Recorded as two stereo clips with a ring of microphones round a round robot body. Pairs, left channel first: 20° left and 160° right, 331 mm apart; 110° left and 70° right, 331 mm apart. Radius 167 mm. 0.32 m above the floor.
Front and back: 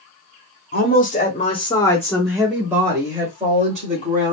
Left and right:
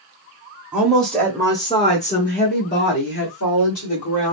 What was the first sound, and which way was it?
A woman speaking, 15° left.